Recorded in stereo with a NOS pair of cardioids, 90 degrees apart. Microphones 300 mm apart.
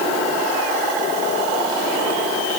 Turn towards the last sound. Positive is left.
No sound to turn to.